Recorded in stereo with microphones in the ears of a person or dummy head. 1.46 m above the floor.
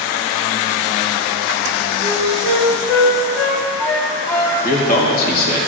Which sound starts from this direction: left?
A man speaking, at 4.6 s.